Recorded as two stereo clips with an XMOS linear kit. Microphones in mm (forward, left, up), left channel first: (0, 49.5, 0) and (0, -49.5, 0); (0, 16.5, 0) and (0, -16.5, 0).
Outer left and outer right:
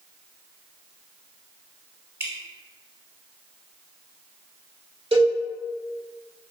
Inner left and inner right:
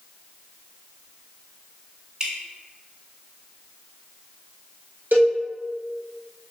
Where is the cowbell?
90° right, 1.0 m.